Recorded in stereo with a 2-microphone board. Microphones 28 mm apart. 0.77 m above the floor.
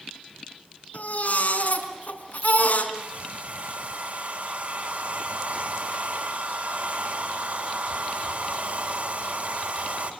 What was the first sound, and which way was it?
A baby crying, 65° left (ahead or behind).